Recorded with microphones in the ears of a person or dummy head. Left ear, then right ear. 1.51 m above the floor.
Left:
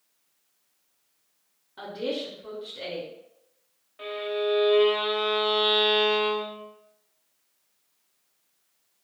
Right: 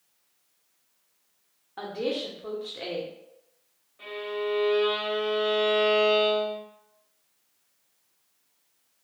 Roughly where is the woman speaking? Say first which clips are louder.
Right 1 dB; right.